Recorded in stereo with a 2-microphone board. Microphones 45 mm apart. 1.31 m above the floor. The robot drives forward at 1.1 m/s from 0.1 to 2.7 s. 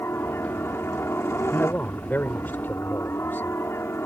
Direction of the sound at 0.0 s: 70° left (ahead or behind).